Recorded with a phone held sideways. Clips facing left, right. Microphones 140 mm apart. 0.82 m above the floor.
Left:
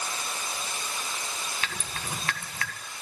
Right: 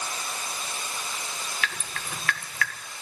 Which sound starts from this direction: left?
Dripping, at 1.6 s.